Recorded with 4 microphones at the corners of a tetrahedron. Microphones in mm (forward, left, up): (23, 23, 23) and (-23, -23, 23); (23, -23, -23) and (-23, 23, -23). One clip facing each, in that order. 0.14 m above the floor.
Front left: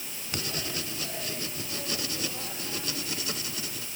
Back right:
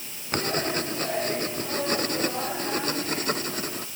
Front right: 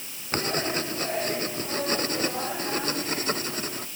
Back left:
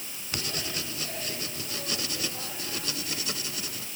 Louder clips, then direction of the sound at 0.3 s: Back right 9 dB, front right 8 dB; 95° right.